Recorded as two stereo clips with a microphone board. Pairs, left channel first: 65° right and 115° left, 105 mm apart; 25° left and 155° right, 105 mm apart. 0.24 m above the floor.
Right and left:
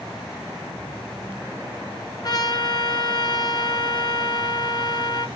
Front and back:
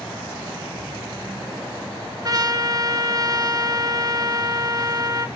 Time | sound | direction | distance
2.2 | a trumpet | 110° right | 2 m